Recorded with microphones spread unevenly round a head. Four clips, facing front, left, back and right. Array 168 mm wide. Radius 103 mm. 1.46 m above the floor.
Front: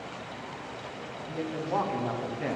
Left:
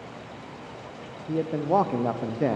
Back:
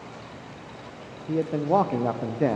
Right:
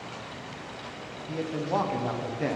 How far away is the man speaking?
About 0.6 m.